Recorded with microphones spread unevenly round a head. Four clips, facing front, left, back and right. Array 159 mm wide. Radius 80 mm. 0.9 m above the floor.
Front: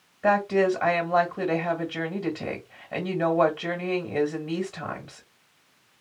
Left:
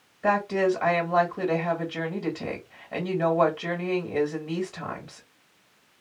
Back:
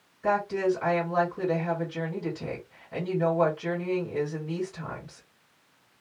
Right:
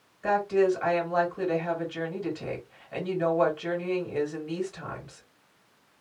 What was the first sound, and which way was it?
A woman speaking, 35° left.